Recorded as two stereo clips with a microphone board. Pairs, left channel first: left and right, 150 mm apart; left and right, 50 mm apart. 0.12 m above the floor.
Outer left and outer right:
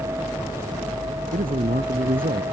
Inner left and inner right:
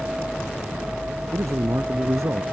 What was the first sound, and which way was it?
A man speaking, 80° right.